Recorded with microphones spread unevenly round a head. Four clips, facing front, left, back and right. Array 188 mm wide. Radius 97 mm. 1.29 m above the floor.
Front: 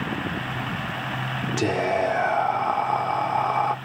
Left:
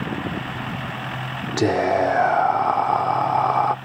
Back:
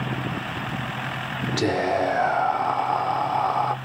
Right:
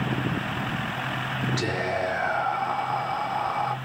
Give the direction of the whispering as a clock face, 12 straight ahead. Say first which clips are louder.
Left 12 dB, back 1 dB; 9 o'clock.